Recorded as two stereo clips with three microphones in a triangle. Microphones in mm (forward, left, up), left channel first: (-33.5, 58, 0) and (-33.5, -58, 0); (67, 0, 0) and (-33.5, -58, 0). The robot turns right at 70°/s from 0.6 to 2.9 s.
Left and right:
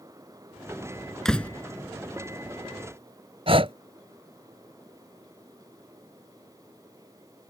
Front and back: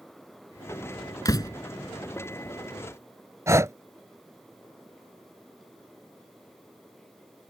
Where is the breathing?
90° right.